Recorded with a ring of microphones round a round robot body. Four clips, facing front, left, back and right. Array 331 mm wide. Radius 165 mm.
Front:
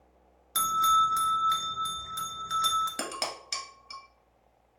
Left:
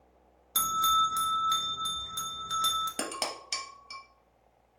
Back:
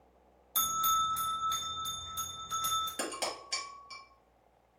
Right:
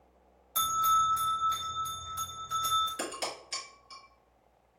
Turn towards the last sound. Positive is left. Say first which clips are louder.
# left 1 dB, front 2 dB
turn(degrees=60)